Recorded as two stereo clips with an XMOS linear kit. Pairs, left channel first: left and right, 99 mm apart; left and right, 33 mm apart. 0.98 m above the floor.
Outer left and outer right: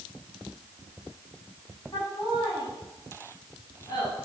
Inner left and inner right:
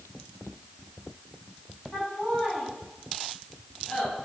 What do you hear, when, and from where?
1.9 s laughter: 45° left (ahead or behind), 9 m